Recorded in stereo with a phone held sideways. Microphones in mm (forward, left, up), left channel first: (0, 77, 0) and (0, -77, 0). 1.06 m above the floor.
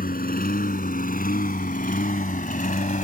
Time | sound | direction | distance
0.0 | a lawn mower | 75° left (ahead or behind) | ?